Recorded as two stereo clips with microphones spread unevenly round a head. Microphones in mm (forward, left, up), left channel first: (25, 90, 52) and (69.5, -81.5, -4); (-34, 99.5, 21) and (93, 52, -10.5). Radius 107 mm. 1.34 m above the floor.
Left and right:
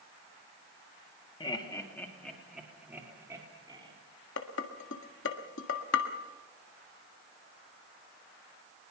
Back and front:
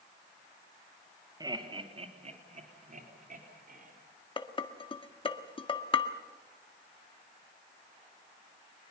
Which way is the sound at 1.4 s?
40° left.